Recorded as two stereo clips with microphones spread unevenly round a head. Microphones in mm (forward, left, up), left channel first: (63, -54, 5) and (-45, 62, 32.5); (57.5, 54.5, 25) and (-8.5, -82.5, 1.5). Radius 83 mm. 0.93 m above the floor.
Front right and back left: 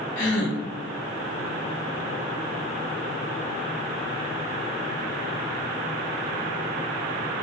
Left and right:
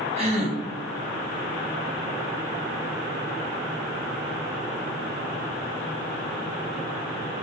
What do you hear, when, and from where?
0.2 s a gasp: 65° right, 0.8 m